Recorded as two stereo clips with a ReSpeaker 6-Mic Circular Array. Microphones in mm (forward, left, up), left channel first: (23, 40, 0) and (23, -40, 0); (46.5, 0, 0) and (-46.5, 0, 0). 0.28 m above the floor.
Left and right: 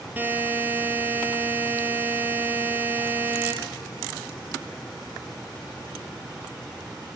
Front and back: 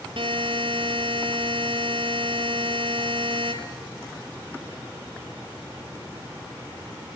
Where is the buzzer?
160° right, 4.5 m.